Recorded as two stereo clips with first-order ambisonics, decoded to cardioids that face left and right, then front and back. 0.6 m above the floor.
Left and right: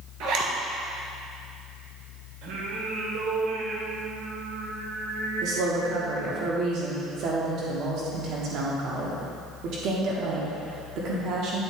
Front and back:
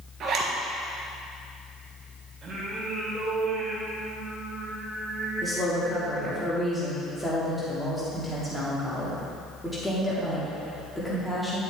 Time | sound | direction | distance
0.2 | a zipper | 125° right | 1.5 m
2.4 | singing | 110° right | 1.9 m
5.4 | a woman speaking | 90° right | 1.5 m